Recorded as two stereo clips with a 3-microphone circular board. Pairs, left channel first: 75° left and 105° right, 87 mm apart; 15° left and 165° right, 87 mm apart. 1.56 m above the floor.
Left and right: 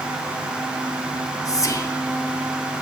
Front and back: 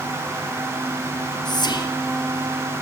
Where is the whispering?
35° left, 0.8 m.